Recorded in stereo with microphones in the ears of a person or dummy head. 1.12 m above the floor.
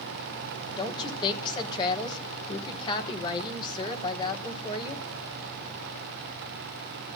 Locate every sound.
0.8 s a woman speaking: 25° left (ahead or behind), 3.5 m